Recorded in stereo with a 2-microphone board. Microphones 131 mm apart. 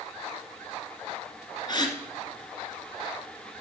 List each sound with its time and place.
1.7 s a gasp: 35° left (ahead or behind), 1.7 m